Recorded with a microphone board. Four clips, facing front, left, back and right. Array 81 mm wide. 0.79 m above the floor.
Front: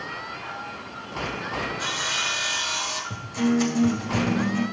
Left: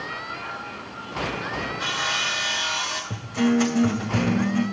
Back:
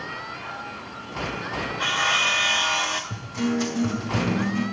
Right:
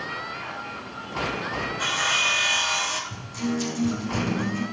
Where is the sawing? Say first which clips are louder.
Right 3 dB, back 5 dB; 170° right, 1.5 m.